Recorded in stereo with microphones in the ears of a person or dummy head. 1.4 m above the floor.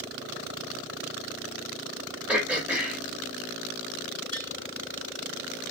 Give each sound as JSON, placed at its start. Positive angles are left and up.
{"t": 2.3, "sound": "throat clearing", "side_deg": -5, "distance_m": 1.1}
{"t": 4.3, "sound": "tapping", "side_deg": -25, "distance_m": 2.0}